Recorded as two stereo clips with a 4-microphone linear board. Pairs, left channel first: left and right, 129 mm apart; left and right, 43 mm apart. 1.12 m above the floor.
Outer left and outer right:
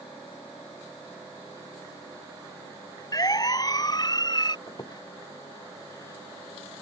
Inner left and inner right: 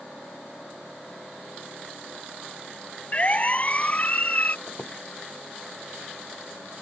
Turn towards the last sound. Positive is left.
turn(degrees=35)  # may be behind; listen again after turning